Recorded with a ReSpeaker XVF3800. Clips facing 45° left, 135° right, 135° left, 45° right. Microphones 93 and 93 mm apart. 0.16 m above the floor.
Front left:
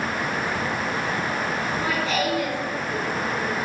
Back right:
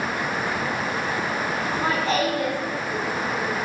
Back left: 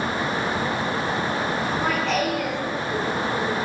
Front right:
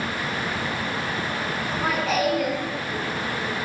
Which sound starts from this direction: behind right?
Laughter, at 1.6 s.